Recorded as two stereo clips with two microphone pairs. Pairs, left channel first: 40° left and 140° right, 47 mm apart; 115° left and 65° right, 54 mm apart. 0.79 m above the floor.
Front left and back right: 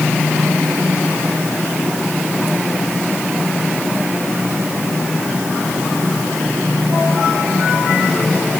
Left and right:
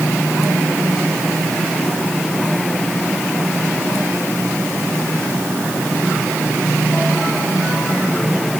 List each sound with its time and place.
Only background noise.